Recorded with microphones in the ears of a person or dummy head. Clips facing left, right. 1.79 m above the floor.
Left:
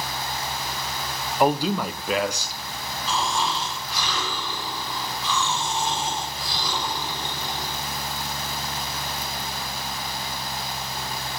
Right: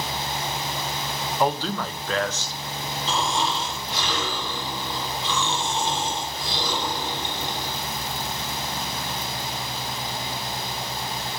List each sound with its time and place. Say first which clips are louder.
1.4 s a man speaking: left 4 dB; 15° left (ahead or behind), 0.9 m
3.1 s snoring: even; 25° right (ahead or behind), 5 m